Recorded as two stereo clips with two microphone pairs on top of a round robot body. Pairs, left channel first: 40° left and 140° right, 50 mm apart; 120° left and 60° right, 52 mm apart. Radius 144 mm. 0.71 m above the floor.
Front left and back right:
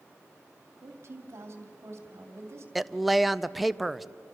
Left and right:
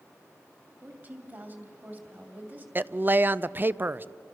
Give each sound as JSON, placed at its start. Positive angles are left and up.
{"t": 0.8, "sound": "a woman speaking", "azimuth_deg": -110, "distance_m": 2.5}
{"t": 2.8, "sound": "a woman speaking", "azimuth_deg": -40, "distance_m": 0.7}